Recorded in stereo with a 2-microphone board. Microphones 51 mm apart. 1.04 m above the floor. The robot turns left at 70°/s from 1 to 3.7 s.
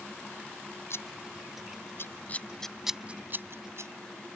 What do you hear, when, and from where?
0.9 s scissors: 55° left (ahead or behind); by 3.9 s 65° right (ahead or behind)